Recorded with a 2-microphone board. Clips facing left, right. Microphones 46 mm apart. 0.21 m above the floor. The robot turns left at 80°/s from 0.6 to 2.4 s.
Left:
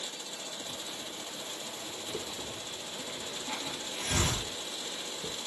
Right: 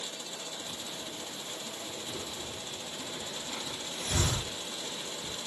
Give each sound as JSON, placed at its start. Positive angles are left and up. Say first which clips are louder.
{"t": 2.1, "sound": "a hiss", "louder": "left 1 dB", "side_deg": 60, "distance_m": 2.5}